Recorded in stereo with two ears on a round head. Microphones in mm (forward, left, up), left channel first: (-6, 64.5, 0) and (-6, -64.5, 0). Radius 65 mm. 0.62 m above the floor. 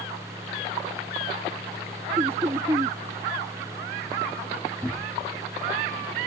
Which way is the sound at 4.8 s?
5° left (ahead or behind).